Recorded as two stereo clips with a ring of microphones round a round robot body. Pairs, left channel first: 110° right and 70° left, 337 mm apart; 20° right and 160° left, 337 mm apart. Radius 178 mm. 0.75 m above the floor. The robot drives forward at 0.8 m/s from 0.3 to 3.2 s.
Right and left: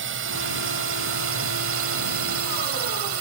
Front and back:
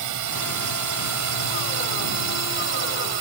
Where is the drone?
125° left; by 3.2 s 115° left.